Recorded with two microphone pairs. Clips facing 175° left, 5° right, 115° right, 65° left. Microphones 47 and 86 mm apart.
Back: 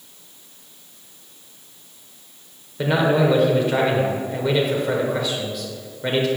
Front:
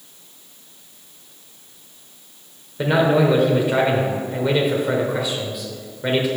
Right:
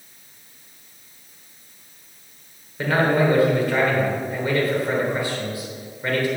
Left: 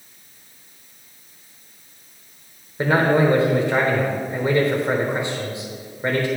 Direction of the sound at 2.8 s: 75° left.